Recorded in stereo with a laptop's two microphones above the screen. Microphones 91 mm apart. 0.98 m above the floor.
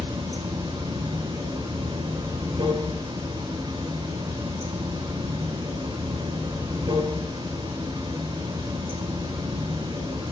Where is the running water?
70° right (ahead or behind), 3.5 m.